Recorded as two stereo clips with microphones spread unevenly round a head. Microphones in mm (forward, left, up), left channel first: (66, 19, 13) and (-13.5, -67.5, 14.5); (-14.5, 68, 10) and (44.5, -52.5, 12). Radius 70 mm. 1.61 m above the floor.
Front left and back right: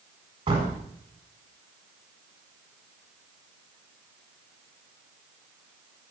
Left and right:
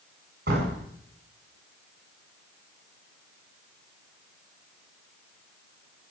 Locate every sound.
0.5 s a door slam: 95° right, 7.5 m